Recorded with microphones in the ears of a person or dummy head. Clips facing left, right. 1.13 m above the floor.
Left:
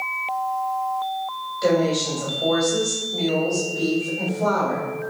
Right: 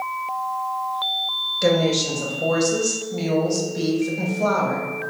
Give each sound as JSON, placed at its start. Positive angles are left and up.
{"t": 1.6, "sound": "a woman speaking", "side_deg": -35, "distance_m": 1.4}